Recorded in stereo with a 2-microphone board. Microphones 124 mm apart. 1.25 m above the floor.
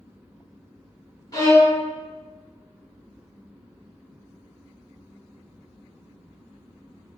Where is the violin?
30° left (ahead or behind), 1.3 m.